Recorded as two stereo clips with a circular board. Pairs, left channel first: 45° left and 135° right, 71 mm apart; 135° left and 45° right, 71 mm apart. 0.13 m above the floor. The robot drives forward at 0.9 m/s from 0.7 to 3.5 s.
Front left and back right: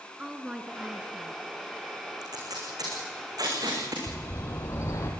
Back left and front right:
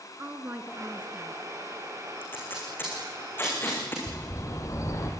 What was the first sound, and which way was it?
A woman speaking, 65° right.